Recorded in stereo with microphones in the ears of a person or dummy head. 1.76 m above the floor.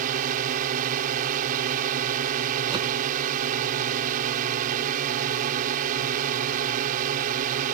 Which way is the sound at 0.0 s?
50° right (ahead or behind).